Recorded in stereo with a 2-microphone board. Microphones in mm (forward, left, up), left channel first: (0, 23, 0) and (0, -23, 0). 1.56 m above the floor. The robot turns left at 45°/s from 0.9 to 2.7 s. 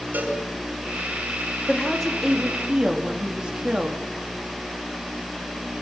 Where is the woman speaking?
25° left, 3.5 m; by 4.0 s 25° right, 3.5 m.